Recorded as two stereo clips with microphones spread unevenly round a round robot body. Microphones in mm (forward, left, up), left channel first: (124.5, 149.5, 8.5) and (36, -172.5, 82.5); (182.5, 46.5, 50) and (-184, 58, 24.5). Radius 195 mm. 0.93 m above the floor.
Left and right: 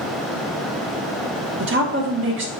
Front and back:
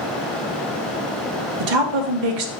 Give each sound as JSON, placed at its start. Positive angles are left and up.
{"t": 1.6, "sound": "a woman speaking", "azimuth_deg": -170, "distance_m": 1.0}